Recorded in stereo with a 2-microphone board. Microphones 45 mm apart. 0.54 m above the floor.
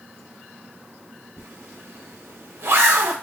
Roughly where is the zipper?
Right.